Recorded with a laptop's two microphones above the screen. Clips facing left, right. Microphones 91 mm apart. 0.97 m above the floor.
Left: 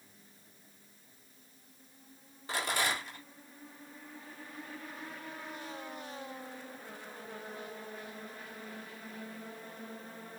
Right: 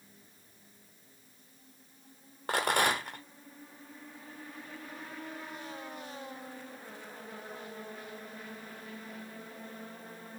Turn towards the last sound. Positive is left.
turn(degrees=-60)  # may be behind; listen again after turning